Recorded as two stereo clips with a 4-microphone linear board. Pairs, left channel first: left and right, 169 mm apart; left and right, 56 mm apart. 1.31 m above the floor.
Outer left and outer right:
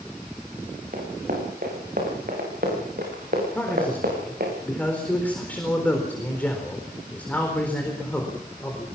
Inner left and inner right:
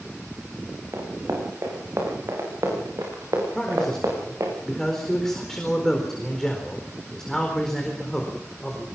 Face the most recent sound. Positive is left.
turn(degrees=10)  # may be behind; listen again after turning